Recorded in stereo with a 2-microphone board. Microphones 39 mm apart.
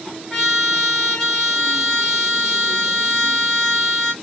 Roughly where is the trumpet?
Centre.